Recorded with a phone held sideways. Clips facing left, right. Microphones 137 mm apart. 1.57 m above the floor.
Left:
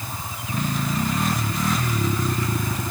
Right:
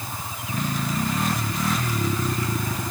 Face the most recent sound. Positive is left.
No sound to turn to.